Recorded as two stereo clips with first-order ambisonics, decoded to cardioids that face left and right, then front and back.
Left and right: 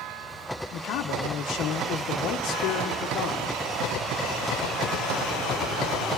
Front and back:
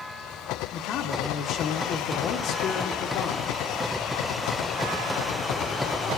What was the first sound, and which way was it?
A man speaking, 50° left.